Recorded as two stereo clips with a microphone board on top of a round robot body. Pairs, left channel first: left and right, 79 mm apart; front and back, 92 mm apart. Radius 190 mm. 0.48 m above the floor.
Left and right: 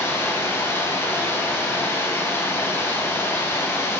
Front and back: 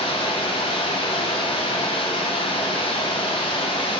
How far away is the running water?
About 1.9 m.